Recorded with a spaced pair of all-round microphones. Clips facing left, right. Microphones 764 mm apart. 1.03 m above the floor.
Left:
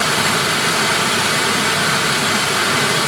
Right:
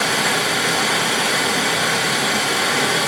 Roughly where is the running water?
Left.